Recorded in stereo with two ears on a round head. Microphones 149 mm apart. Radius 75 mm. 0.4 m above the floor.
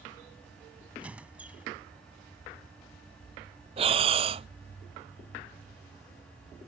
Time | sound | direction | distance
1.0 | a squeak | 10° right (ahead or behind) | ?
3.8 | breathing | 35° right (ahead or behind) | ?